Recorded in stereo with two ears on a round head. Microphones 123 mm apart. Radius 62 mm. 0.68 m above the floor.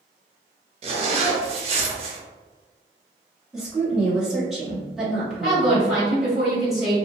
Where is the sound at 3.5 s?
5° right (ahead or behind), 1.3 m.